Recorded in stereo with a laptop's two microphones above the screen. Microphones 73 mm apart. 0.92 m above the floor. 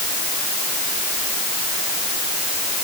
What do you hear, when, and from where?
Only background noise.